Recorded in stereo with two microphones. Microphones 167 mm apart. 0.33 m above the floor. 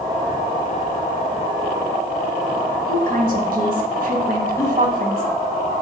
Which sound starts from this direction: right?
A woman speaking, at 2.9 s.